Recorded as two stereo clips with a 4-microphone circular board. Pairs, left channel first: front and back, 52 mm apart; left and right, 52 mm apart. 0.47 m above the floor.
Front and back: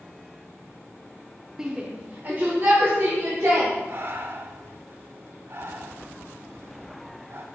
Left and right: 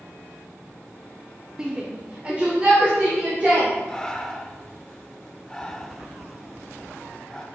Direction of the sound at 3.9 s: 165° left.